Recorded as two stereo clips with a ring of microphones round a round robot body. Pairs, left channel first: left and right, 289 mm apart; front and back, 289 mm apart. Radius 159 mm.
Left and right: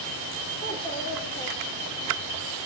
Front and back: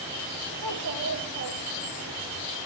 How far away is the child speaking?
About 9.5 m.